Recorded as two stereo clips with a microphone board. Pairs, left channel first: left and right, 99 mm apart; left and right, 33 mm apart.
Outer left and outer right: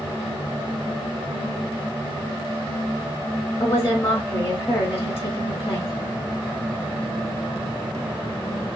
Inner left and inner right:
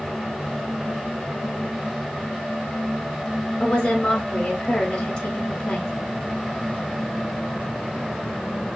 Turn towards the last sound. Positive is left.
turn(degrees=25)  # may be behind; listen again after turning